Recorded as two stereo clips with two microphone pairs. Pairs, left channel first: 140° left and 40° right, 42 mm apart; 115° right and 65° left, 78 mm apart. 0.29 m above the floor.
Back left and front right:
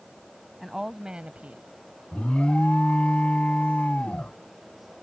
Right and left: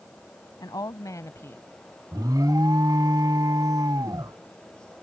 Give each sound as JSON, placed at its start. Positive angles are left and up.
{"t": 0.6, "sound": "a woman speaking", "azimuth_deg": -125}
{"t": 2.1, "sound": "an alarm", "azimuth_deg": 85}